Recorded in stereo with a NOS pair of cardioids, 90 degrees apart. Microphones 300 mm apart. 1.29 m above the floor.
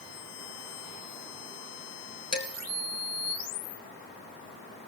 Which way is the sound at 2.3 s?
60° left.